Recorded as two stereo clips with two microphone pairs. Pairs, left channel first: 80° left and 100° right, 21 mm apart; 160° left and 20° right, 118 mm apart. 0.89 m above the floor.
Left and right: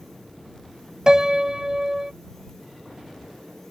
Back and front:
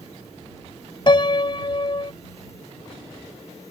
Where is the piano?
160° right.